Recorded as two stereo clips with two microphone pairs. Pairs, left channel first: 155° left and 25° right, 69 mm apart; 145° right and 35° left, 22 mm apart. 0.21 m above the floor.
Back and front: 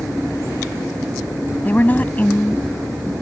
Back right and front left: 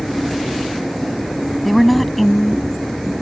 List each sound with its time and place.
1.6 s a woman speaking: 125° left